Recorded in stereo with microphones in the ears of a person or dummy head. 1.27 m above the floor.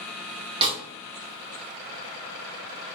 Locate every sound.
0.6 s a snare drum: 20° right (ahead or behind), 1.2 m